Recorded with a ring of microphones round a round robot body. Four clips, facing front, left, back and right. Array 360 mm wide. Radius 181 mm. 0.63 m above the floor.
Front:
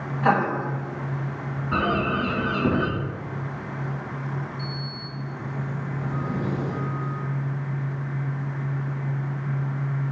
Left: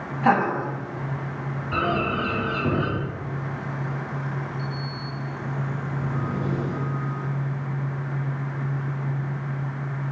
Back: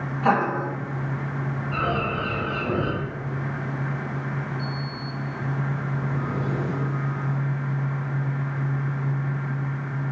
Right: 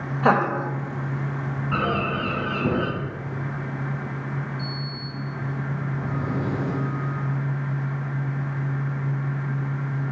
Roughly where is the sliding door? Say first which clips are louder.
Left 1 dB, back 3 dB; right.